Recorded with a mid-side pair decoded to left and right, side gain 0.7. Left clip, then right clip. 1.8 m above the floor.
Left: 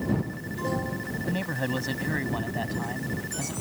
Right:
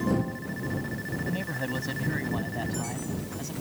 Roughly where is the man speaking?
Ahead.